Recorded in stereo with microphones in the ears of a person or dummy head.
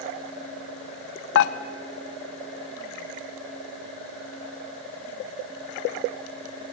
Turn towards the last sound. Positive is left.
turn(degrees=65)  # may be behind; listen again after turning